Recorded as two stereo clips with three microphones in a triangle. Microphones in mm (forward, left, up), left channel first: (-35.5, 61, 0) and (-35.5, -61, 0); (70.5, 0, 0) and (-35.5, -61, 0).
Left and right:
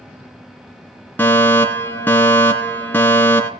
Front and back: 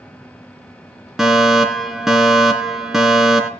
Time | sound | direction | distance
1.2 | a fire alarm | 130° left | 2.5 m